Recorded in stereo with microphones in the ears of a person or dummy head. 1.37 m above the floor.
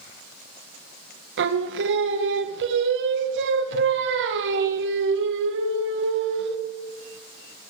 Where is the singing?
70° right (ahead or behind), 0.7 m.